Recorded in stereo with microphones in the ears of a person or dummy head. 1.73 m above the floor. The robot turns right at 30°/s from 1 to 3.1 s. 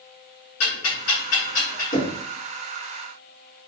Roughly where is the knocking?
Left.